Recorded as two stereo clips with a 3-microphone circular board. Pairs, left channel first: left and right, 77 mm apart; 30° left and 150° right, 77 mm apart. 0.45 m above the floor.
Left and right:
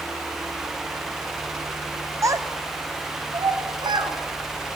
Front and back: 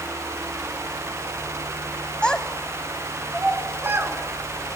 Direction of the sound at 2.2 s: 45° right.